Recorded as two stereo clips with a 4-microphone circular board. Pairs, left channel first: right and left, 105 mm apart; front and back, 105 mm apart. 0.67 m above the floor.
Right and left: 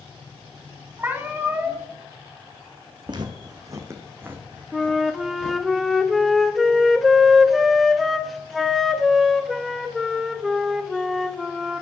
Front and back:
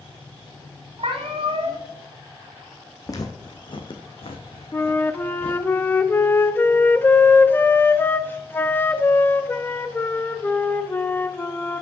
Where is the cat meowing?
160° left, 1.6 m.